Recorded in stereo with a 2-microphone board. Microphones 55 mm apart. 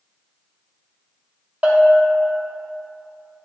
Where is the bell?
30° right (ahead or behind), 1.1 m.